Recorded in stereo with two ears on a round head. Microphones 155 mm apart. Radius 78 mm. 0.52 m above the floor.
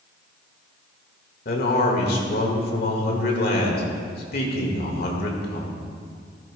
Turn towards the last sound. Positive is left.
turn(degrees=60)  # may be behind; listen again after turning